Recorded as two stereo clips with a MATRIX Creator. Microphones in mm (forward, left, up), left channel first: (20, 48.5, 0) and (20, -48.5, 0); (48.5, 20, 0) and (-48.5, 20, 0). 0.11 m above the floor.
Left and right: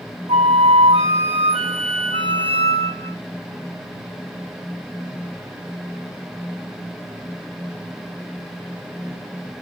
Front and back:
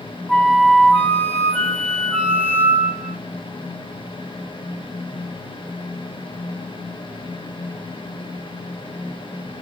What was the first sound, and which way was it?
A flute, 85° right.